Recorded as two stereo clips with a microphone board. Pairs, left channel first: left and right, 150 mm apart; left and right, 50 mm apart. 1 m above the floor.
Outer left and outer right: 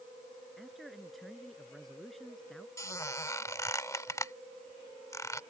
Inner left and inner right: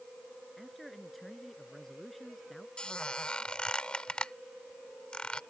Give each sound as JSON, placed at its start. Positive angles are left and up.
{"t": 0.6, "sound": "a man speaking", "side_deg": 0}
{"t": 2.8, "sound": "a squeak", "side_deg": 20}